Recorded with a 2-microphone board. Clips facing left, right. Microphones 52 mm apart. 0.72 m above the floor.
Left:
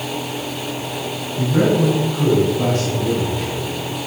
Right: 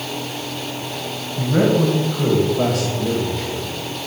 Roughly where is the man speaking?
Right.